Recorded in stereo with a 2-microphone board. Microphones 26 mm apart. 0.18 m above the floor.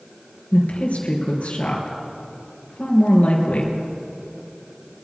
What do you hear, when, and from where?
0.5 s a woman speaking: 65° left (ahead or behind), 3 m